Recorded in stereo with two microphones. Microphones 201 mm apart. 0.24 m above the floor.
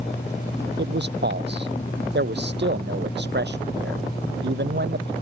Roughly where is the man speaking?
Right.